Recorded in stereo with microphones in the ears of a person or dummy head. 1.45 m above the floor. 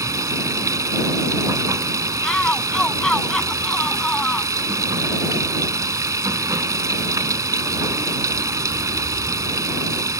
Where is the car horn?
No car horn in this recording.